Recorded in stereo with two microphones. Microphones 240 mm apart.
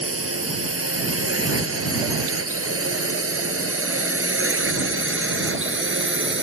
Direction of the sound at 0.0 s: 70° right (ahead or behind).